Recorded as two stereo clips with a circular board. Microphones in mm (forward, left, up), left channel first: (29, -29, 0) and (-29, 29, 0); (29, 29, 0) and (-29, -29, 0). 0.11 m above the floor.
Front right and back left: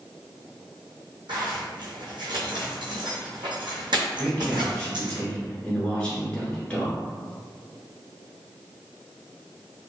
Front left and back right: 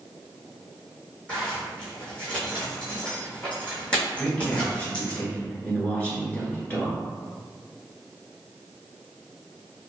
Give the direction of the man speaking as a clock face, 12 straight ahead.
12 o'clock.